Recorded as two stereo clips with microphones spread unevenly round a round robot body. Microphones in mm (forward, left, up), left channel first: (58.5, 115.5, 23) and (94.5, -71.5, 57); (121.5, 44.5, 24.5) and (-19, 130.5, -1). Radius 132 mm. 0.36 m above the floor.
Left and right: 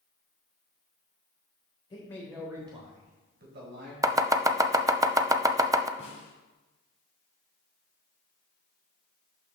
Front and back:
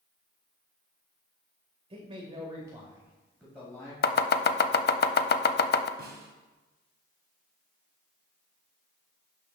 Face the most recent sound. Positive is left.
turn(degrees=155)